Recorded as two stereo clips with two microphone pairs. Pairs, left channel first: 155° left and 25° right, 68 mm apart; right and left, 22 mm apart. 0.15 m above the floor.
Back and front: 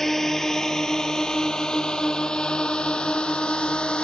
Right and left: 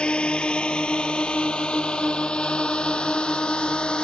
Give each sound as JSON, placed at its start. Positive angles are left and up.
{"t": 0.0, "sound": "a drone", "azimuth_deg": -120}